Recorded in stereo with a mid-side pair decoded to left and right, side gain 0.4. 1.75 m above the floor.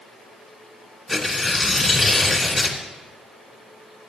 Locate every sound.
1.1 s tearing paper: 20° left, 2.5 m